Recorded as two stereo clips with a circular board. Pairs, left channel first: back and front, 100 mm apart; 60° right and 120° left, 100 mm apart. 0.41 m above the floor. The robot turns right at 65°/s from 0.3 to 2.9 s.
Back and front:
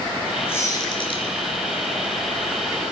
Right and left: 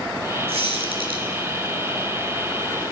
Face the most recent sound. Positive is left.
turn(degrees=-90)